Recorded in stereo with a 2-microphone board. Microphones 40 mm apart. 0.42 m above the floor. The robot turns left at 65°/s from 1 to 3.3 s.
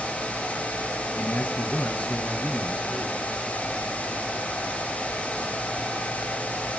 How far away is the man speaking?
About 4 m.